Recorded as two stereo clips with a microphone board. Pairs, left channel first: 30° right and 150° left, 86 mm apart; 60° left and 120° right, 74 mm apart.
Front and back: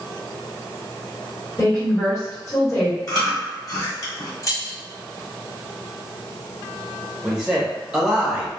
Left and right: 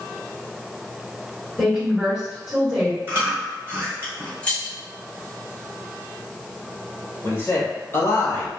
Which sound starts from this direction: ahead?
Keys jangling, at 4.4 s.